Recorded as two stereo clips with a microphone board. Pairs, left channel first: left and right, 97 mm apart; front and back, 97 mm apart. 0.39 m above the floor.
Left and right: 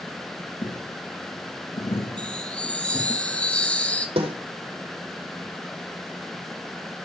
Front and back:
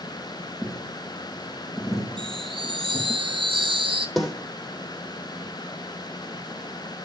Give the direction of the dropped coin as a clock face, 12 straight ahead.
9 o'clock.